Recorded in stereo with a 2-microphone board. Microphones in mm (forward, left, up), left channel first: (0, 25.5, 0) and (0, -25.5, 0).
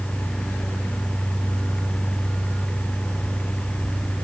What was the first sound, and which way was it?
Only background noise.